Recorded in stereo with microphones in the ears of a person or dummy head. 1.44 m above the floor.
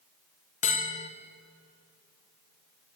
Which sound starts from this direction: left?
A bell, at 0.6 s.